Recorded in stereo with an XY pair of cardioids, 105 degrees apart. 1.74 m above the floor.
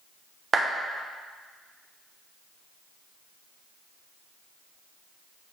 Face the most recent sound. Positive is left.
turn(degrees=-35)